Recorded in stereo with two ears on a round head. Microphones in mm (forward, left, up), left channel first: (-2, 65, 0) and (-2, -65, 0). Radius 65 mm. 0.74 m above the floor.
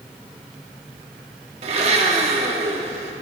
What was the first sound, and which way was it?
A blender, 45° right (ahead or behind).